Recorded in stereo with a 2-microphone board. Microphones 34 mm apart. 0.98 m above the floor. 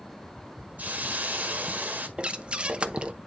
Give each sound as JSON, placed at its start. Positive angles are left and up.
{"t": 0.8, "sound": "a hiss", "side_deg": -50, "distance_m": 1.6}
{"t": 2.2, "sound": "breathing", "side_deg": -35, "distance_m": 0.8}